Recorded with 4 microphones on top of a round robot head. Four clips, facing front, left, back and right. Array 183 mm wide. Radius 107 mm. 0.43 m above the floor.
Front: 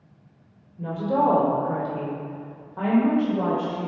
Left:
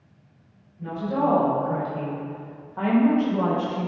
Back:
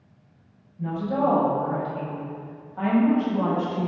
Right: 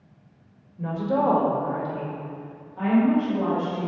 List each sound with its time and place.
0.8 s a woman speaking: 55° right, 2 m; by 3.9 s 60° left, 3 m